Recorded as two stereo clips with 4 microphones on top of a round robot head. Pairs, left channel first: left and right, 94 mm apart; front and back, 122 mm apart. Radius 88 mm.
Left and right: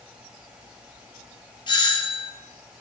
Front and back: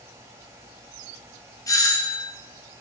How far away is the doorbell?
About 3.5 m.